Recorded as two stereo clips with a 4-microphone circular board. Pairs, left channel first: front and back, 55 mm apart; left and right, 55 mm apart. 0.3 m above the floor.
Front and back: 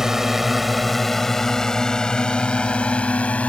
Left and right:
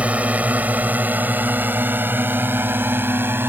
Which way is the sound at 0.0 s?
110° right.